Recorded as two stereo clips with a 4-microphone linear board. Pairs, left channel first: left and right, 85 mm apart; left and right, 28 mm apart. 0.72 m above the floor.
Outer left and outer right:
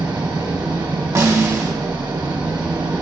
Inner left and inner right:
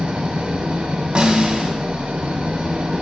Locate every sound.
0.0 s an engine running: 70° right (ahead or behind), 2 m
1.1 s a snare drum: 45° right (ahead or behind), 1.5 m